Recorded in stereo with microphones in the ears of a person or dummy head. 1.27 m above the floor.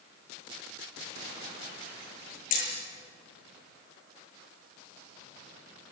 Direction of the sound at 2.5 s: 45° left (ahead or behind).